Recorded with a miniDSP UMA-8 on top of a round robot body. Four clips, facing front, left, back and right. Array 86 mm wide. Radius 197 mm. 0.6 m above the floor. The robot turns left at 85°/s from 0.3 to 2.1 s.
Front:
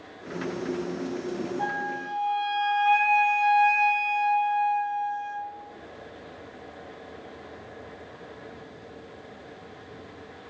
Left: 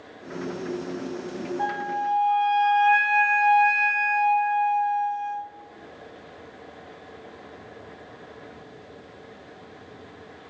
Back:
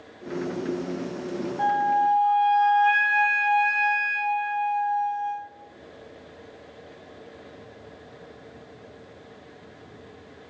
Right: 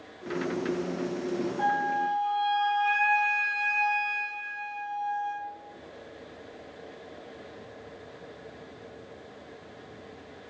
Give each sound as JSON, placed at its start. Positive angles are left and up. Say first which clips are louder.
{"t": 1.6, "sound": "a flute", "louder": "even, back 9 dB", "azimuth_deg": -170, "distance_m": 1.3}